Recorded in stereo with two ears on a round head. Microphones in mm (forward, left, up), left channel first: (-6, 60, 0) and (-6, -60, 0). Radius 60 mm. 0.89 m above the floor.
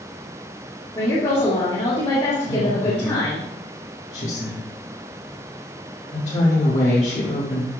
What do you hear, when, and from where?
0.9 s a woman speaking: 45° left (ahead or behind), 1.8 m
2.5 s a woman speaking: 55° left (ahead or behind), 1.6 m